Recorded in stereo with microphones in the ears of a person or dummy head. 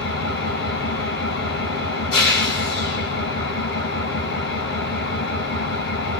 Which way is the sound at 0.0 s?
65° left (ahead or behind).